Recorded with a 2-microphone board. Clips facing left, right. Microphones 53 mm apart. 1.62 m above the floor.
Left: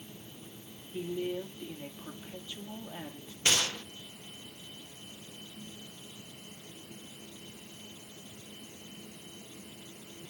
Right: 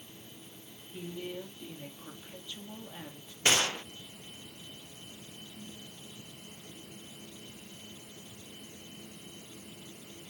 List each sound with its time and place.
0.9 s a woman speaking: 15° left (ahead or behind), 2.5 m
3.5 s a gunshot: 25° right (ahead or behind), 0.5 m